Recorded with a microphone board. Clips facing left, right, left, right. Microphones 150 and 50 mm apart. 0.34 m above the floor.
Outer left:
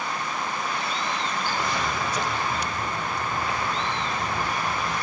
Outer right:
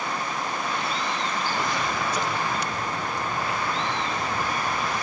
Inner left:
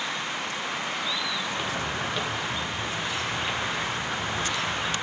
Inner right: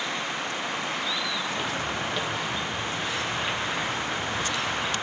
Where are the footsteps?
5° right (ahead or behind), 1.6 m; by 4.9 s centre (ahead or behind), 4 m.